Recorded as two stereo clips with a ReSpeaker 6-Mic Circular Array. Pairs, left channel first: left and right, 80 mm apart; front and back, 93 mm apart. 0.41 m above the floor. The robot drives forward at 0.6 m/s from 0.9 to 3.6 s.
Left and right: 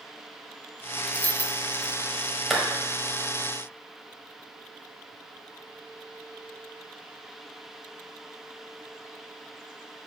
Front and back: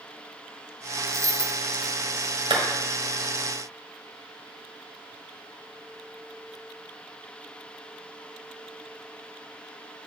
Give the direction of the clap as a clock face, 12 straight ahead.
6 o'clock.